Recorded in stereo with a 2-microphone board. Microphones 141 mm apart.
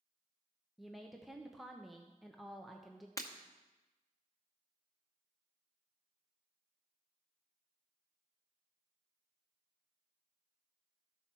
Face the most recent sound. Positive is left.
turn(degrees=25)  # may be behind; listen again after turning